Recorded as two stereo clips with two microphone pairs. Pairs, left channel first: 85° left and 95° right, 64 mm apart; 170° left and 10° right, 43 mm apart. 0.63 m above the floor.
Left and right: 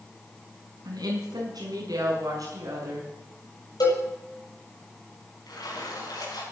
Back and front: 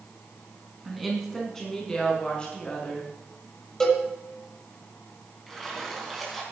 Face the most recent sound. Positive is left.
turn(degrees=85)